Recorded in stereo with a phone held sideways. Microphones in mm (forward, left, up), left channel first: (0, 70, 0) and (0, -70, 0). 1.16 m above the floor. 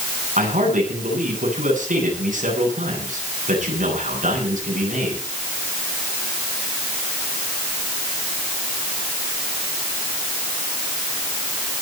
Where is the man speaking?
80° right, 9 m.